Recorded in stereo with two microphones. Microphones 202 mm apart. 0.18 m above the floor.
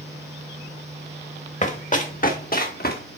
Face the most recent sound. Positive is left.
turn(degrees=50)  # may be behind; listen again after turning